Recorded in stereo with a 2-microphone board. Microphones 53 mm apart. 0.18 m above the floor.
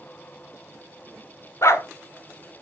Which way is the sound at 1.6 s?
60° left (ahead or behind).